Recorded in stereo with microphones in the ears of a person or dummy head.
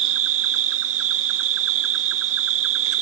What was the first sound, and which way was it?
An insect, 60° right (ahead or behind).